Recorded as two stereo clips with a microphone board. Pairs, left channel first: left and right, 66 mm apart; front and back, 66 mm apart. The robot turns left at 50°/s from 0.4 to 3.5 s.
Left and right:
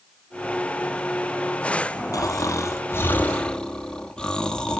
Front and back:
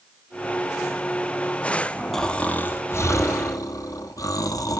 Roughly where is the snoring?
Left.